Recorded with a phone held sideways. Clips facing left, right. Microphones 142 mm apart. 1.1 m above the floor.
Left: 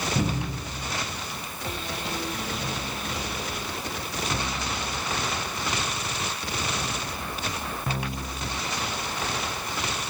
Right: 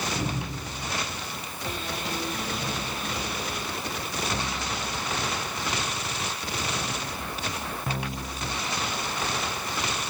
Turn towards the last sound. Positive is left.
turn(degrees=75)  # may be behind; listen again after turning